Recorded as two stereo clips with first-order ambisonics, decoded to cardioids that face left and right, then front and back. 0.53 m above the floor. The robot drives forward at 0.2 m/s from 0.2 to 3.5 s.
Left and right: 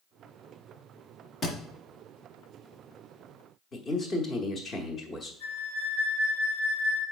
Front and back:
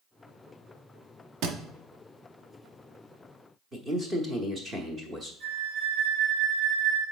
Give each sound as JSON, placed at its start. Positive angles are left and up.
{"t": 1.4, "sound": "a thud", "azimuth_deg": 155, "distance_m": 1.0}
{"t": 3.7, "sound": "a man speaking", "azimuth_deg": 125, "distance_m": 0.8}
{"t": 5.4, "sound": "a flute", "azimuth_deg": 130, "distance_m": 2.5}